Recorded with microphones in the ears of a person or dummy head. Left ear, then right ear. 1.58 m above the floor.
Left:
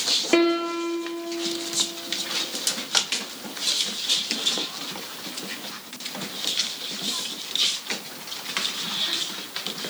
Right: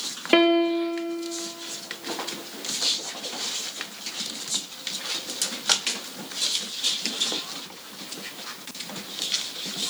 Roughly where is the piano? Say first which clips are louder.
Right 6 dB; right.